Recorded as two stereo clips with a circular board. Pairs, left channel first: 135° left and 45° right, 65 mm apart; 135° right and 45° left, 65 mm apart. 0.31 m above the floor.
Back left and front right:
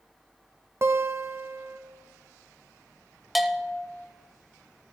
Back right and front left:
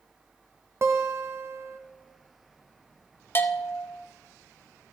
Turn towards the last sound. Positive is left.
turn(degrees=-135)